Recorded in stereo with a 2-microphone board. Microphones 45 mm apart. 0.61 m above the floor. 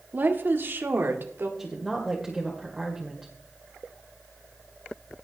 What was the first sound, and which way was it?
A woman speaking, 45° right (ahead or behind).